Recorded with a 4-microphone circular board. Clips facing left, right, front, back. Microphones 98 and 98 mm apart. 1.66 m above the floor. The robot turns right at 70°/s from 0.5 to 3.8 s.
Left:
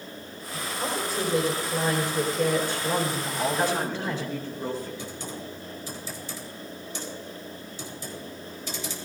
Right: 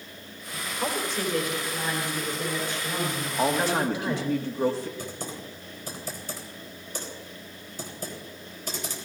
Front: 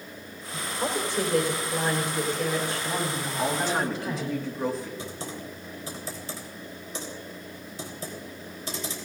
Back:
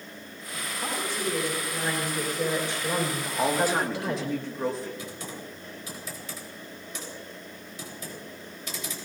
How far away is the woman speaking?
About 4.5 m.